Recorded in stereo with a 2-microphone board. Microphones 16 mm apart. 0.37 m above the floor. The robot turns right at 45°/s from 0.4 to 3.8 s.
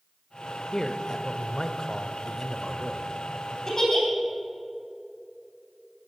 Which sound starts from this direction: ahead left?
A man speaking, at 0.7 s.